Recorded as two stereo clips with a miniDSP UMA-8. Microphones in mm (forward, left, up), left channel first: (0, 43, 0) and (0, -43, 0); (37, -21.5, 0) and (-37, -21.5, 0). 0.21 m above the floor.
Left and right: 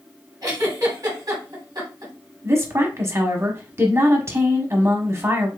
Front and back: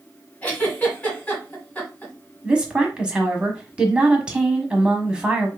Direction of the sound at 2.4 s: 110° right.